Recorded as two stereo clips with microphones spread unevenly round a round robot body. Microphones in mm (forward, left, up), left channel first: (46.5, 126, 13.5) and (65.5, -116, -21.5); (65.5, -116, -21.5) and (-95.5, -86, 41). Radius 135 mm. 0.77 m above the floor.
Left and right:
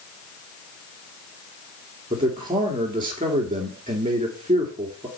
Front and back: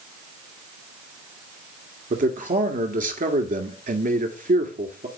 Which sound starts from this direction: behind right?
A man speaking, at 2.1 s.